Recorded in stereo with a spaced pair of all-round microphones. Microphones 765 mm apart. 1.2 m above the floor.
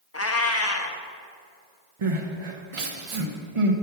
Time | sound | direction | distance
0.1 | a cat meowing | 20° left (ahead or behind) | 0.5 m
2.0 | crying | 45° right (ahead or behind) | 0.8 m